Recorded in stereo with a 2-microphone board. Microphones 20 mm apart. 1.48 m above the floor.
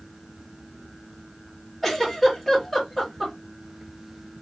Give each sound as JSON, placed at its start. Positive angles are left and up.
{"t": 1.8, "sound": "a giggle", "side_deg": 10, "distance_m": 1.8}